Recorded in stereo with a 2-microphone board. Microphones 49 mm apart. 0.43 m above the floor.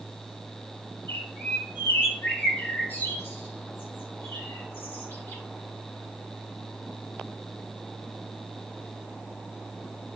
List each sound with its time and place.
1.1 s a bird: 45° left (ahead or behind), 1.3 m